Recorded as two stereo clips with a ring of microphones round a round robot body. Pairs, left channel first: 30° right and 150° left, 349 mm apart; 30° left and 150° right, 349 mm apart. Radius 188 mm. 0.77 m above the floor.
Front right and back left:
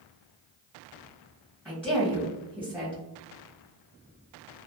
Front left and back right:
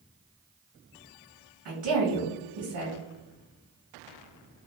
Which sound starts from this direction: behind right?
A woman speaking, at 1.6 s.